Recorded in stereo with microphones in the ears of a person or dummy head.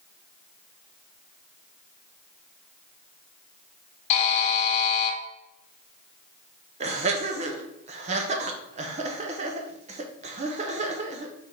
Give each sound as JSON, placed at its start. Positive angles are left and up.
{"t": 4.1, "sound": "a buzzer", "side_deg": 35, "distance_m": 0.9}
{"t": 6.8, "sound": "laughter", "side_deg": -35, "distance_m": 0.6}